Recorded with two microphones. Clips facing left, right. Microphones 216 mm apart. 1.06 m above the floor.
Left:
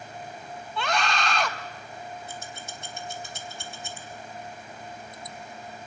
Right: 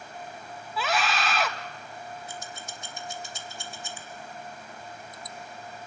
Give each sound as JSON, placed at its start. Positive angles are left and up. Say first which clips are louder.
{"t": 0.8, "sound": "a scream", "louder": "even", "side_deg": -5, "distance_m": 1.4}
{"t": 2.3, "sound": "scissors", "louder": "left 1 dB", "side_deg": 60, "distance_m": 2.5}